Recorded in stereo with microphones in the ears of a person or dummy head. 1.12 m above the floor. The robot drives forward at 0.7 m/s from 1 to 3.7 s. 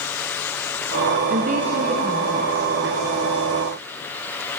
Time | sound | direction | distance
1.3 | a woman speaking | 45° right (ahead or behind) | 0.7 m